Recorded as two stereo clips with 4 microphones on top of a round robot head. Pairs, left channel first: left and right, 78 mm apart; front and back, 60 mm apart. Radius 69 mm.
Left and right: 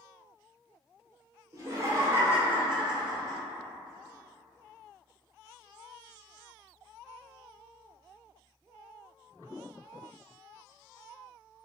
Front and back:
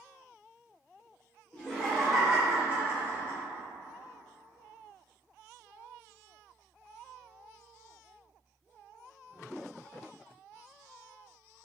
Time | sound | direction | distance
1.5 | laughter | 70° right | 1.3 m